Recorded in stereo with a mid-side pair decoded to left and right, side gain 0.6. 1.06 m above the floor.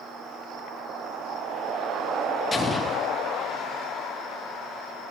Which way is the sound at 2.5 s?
25° left.